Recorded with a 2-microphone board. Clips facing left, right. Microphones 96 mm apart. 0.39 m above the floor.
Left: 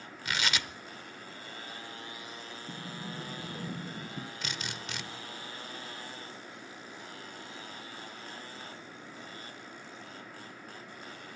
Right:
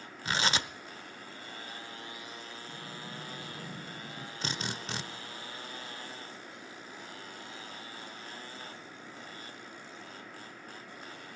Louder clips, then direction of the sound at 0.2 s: Right 3 dB; 30° right (ahead or behind).